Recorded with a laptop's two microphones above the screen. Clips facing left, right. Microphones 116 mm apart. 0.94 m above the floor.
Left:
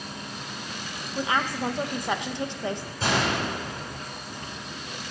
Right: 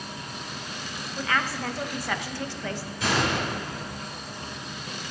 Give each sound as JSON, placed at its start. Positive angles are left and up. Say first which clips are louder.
{"t": 1.1, "sound": "a woman speaking", "louder": "left 2 dB", "side_deg": 20, "distance_m": 0.9}
{"t": 3.0, "sound": "a gunshot", "louder": "even", "side_deg": 30, "distance_m": 7.0}